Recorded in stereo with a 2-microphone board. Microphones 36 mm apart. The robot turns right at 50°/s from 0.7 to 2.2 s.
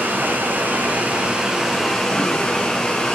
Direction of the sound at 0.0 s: 60° right.